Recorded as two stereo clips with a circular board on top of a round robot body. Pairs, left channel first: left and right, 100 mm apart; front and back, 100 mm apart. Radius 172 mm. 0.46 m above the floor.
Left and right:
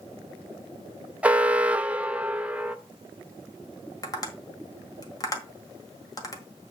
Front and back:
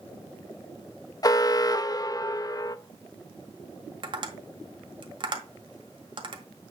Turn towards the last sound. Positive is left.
turn(degrees=140)